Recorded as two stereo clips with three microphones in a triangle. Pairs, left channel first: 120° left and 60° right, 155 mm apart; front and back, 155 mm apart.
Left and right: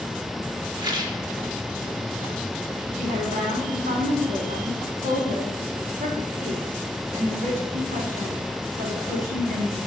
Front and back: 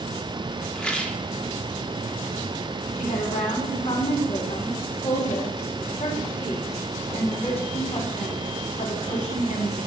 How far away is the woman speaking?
About 4 m.